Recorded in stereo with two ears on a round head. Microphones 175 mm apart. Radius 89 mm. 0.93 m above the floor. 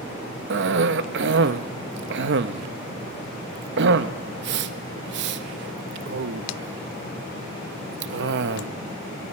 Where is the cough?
65° right (ahead or behind), 0.7 m.